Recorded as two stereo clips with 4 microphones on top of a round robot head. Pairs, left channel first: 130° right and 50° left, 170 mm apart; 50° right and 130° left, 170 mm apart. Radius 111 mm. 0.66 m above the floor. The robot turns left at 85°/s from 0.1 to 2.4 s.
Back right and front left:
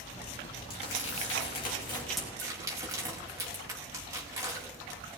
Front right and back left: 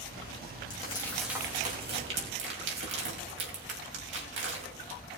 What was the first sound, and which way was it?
Crumpling, 95° right.